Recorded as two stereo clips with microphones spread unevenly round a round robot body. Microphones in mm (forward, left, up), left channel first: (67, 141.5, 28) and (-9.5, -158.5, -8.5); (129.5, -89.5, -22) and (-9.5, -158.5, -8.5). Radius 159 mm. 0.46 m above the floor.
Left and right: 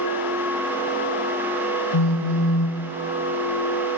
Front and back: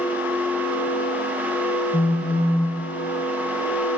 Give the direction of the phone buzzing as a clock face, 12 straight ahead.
9 o'clock.